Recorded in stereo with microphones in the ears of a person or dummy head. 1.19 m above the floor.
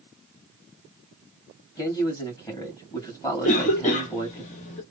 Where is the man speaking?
15° left (ahead or behind), 2.0 m.